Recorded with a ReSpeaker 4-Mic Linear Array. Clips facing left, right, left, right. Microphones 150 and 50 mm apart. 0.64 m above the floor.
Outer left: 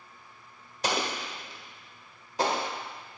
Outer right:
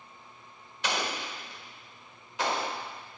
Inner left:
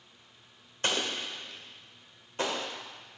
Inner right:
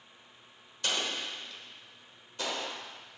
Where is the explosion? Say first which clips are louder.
Outer left 2 dB, inner left 2 dB; 40° left (ahead or behind), 1.4 m.